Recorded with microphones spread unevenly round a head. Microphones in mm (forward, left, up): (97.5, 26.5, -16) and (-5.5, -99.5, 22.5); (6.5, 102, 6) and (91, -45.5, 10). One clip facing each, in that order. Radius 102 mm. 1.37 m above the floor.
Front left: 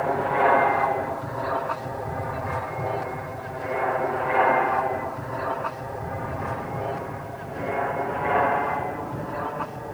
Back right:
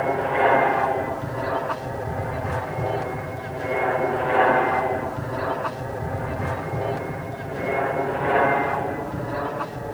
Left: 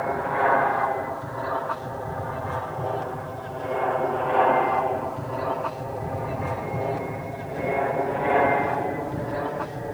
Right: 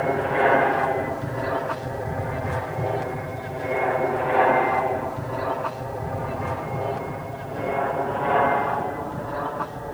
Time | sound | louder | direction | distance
0.0 | an aircraft | back right 1 dB, right 3 dB | 60° right | ?